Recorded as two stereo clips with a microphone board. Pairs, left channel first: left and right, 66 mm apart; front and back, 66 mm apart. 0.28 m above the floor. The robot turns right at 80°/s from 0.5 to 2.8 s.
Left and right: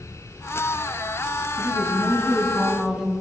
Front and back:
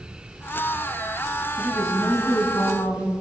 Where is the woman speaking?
100° right, 1.9 m; by 3.1 s 5° right, 1.9 m.